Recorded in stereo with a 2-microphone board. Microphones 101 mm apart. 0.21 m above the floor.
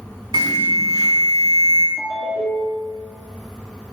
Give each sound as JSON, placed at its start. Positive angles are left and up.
{"t": 0.3, "sound": "an alarm", "side_deg": -50, "distance_m": 1.2}
{"t": 2.0, "sound": "a ringtone", "side_deg": 60, "distance_m": 1.7}